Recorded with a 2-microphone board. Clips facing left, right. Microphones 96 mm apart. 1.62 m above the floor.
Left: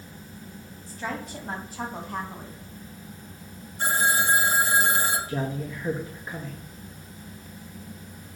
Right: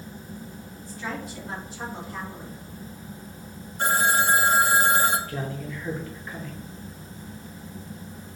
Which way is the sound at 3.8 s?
60° right (ahead or behind).